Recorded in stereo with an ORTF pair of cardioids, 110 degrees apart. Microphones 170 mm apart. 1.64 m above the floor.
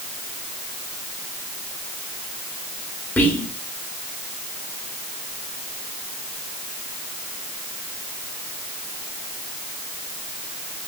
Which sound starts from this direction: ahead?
Whispering, at 3.2 s.